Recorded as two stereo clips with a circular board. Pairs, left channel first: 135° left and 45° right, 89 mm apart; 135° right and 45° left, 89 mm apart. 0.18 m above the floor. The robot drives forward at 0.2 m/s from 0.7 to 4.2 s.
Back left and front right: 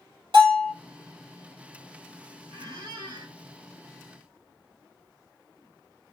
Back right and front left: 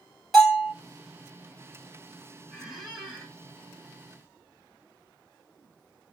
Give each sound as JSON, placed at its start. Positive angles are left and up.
{"t": 0.3, "sound": "a bell", "azimuth_deg": -45, "distance_m": 2.0}
{"t": 2.5, "sound": "a squeak", "azimuth_deg": -45, "distance_m": 1.9}